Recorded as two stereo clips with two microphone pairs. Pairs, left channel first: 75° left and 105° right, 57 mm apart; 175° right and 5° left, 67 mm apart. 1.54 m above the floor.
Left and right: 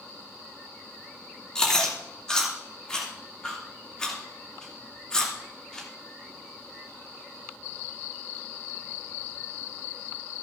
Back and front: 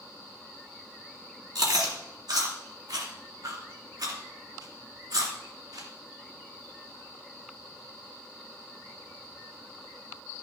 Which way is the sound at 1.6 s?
Straight ahead.